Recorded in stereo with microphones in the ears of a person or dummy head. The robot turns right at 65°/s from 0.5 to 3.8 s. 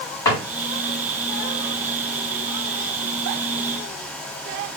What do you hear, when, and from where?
0.2 s a drawer: 20° left (ahead or behind), 1.9 m